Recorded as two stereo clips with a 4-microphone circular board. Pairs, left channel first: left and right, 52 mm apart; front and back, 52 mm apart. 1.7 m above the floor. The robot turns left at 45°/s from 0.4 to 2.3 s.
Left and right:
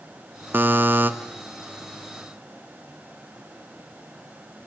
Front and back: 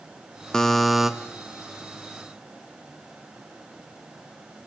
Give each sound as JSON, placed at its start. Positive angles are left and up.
{"t": 0.5, "sound": "a buzzer", "azimuth_deg": -70, "distance_m": 1.2}